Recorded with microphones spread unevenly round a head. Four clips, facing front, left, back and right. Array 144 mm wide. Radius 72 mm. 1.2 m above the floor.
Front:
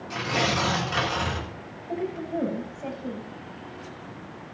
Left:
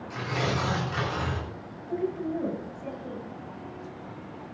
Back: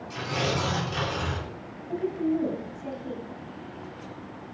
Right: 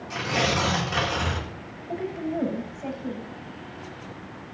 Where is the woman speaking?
40° right, 8.5 m.